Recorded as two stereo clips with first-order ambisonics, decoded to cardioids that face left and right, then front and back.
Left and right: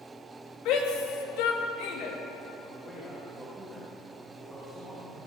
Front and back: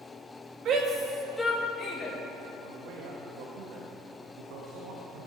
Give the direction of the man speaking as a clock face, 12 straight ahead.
6 o'clock.